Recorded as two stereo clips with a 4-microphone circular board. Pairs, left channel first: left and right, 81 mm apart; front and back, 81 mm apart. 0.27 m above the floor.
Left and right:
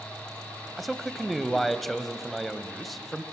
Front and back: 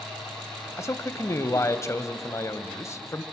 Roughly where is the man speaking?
Ahead.